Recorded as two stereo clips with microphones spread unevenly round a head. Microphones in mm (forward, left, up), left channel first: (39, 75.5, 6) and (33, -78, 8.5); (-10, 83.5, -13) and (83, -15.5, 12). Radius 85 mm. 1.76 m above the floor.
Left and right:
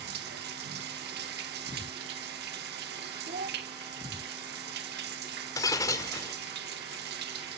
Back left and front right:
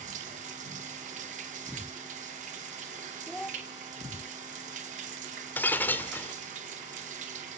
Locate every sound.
0.0 s running water: 85° right, 1.8 m
3.3 s a child speaking: 130° right, 0.8 m
5.6 s breaking glass: 50° left, 1.5 m